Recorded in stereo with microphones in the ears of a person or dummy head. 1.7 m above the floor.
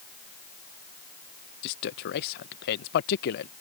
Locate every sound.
1.6 s a man speaking: 55° left (ahead or behind)